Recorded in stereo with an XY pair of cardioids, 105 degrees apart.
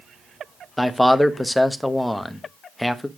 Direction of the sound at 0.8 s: 10° left.